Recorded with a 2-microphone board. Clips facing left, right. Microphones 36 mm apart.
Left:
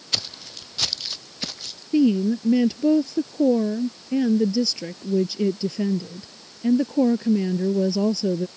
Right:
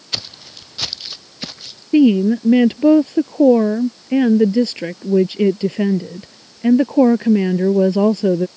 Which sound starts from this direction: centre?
Footsteps, at 0.1 s.